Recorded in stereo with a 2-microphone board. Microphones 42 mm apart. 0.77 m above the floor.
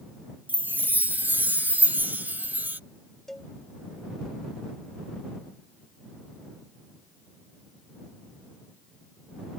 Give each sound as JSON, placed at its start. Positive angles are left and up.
{"t": 0.5, "sound": "a chime", "side_deg": -50}
{"t": 3.3, "sound": "a cowbell", "side_deg": 10}